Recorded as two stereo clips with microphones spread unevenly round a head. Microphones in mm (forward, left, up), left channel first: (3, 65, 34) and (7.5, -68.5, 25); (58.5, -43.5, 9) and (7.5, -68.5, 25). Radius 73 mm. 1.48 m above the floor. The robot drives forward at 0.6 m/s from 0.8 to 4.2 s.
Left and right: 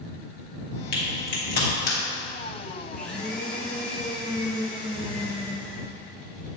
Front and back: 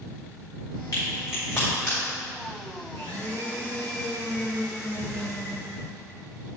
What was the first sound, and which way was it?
A crack, 95° left.